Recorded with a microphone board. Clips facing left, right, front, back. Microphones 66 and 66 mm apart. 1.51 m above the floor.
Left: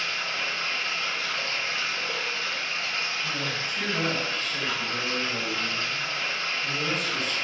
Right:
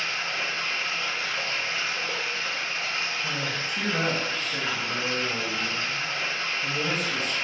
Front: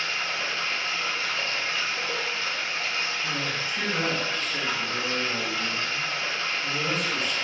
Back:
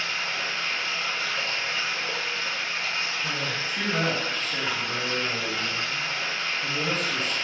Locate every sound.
0.0 s running water: 150° right, 1.1 m
3.2 s a man speaking: 125° right, 0.9 m